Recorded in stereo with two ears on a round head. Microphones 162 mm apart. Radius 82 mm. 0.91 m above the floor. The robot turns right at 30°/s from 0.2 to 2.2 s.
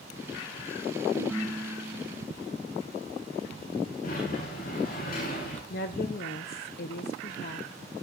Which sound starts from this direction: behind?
A ringtone, at 1.1 s.